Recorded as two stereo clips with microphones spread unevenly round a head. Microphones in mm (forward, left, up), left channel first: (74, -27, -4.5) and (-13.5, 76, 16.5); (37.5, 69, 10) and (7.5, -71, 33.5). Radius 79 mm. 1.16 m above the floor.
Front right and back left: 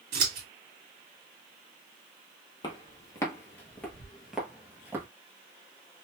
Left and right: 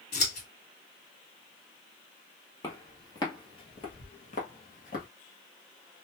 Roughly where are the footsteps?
Ahead.